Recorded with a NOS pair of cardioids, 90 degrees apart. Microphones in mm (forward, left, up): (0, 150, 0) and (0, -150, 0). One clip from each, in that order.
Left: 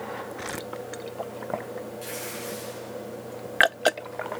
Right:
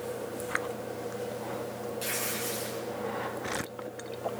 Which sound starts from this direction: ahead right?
Tearing paper, at 2.0 s.